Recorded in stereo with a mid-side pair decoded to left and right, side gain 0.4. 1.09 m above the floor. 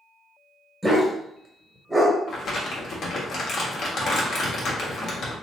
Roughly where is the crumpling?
Ahead left.